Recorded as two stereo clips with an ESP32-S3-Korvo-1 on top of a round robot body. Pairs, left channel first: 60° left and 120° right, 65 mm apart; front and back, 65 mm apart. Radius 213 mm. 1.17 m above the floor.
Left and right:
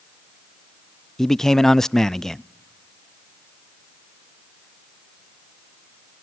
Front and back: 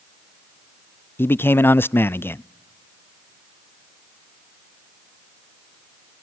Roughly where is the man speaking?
Ahead.